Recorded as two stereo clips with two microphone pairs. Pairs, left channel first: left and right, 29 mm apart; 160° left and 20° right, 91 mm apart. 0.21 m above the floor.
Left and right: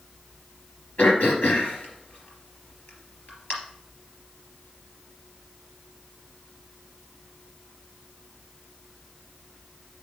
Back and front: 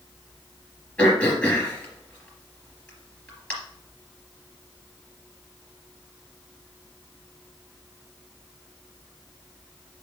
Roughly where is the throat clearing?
Left.